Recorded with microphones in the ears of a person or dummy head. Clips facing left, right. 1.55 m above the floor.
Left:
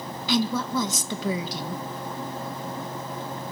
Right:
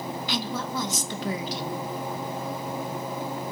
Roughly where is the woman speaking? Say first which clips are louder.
Left 9 dB; left.